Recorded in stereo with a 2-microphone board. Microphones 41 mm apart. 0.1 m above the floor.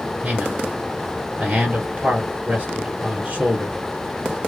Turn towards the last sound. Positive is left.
turn(degrees=-30)  # may be behind; listen again after turning